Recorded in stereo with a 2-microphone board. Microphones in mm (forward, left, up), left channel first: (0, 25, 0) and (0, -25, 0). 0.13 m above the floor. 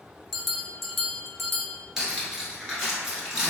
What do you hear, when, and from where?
0.3 s a bell: centre (ahead or behind), 0.5 m
2.0 s cutlery clinking: 15° right (ahead or behind), 1.3 m